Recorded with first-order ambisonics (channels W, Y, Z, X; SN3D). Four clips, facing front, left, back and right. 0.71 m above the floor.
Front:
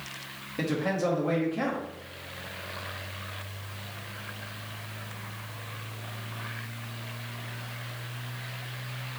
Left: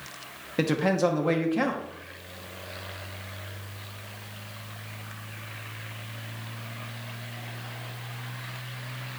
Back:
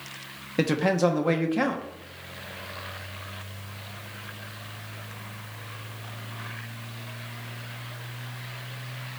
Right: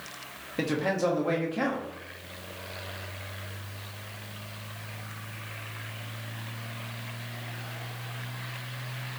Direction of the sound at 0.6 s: 155° left.